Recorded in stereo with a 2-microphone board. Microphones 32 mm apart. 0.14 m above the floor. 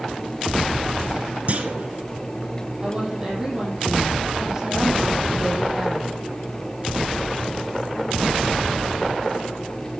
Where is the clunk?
45° right (ahead or behind), 1.0 m.